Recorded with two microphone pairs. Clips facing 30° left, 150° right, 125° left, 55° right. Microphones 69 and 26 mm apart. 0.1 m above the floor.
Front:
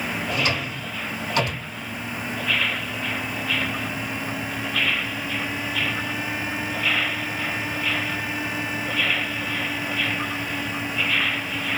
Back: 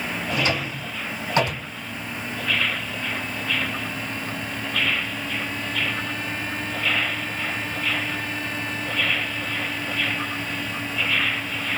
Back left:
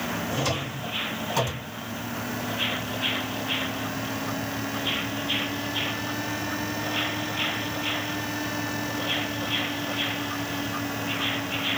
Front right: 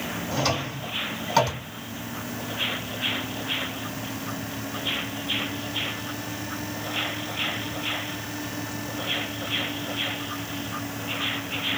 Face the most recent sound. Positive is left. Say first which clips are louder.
# back 3 dB, front right 5 dB
turn(degrees=-95)